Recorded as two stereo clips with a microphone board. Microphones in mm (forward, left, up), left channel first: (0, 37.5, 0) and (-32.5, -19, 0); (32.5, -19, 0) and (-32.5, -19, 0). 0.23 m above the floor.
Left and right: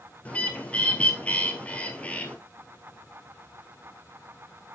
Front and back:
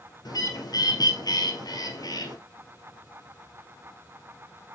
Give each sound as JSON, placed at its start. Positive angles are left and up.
{"t": 0.2, "sound": "a bird", "azimuth_deg": -10, "distance_m": 1.6}